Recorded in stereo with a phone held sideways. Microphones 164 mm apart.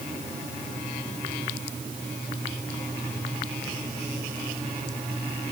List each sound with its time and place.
Only background noise.